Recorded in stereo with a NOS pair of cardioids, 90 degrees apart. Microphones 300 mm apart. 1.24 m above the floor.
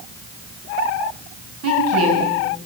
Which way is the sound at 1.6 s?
55° right.